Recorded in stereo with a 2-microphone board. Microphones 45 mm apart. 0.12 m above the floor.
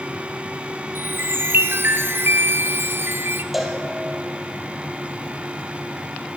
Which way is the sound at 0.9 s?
55° right (ahead or behind).